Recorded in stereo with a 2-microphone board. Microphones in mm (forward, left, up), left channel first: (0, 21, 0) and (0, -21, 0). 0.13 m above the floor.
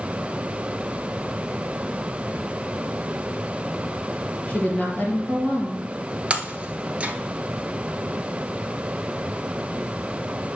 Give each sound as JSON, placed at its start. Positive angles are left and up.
{"t": 4.5, "sound": "a woman speaking", "side_deg": 35, "distance_m": 3.5}
{"t": 6.3, "sound": "breaking glass", "side_deg": -25, "distance_m": 0.9}